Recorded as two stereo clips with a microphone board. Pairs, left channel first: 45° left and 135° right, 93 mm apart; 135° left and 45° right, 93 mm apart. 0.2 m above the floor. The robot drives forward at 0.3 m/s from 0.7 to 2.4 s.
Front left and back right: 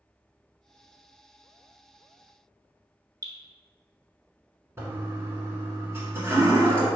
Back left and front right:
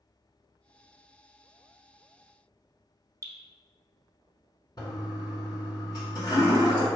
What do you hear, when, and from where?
3.2 s dripping: 95° right, 0.9 m
4.8 s a toilet flushing: 165° left, 1.1 m